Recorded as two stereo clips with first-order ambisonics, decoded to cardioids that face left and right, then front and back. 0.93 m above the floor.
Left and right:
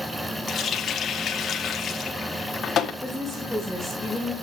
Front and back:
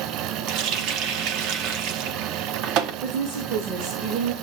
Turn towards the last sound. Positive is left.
turn(degrees=-170)